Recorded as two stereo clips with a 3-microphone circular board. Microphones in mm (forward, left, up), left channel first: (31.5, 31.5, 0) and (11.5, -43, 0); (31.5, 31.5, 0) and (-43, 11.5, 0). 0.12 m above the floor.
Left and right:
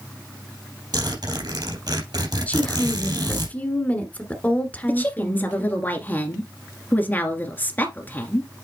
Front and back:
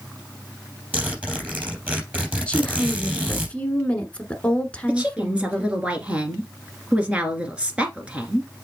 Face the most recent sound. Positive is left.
turn(degrees=125)